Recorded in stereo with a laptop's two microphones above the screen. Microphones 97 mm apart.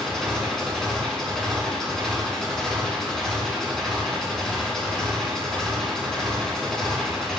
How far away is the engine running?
About 3 m.